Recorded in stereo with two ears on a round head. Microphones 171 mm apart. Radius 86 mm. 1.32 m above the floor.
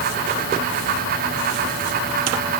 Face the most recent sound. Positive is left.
No sound to turn to.